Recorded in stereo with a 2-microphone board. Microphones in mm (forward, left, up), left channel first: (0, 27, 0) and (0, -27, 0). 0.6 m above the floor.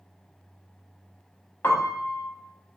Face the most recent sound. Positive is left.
turn(degrees=40)  # may be behind; listen again after turning